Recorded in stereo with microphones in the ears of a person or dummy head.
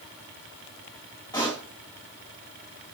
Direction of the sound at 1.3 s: 20° left (ahead or behind).